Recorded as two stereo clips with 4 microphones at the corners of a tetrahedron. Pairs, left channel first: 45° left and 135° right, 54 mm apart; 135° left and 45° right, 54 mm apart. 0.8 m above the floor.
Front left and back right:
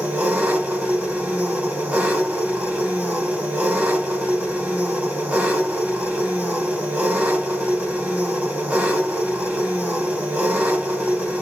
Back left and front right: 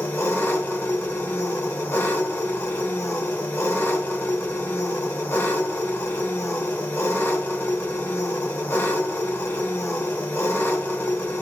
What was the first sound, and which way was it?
An engine running, 165° left.